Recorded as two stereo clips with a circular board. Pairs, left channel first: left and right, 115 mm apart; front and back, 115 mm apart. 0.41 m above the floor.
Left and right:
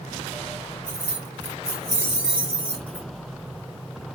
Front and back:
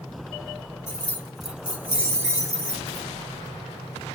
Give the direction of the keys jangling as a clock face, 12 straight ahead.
2 o'clock.